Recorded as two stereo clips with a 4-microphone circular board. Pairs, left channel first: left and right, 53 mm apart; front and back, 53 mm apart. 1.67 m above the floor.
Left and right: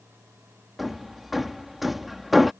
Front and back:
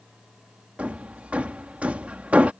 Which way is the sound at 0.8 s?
175° right.